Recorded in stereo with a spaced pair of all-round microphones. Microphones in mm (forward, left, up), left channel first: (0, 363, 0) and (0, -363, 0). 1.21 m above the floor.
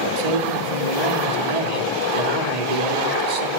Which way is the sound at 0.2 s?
60° right (ahead or behind).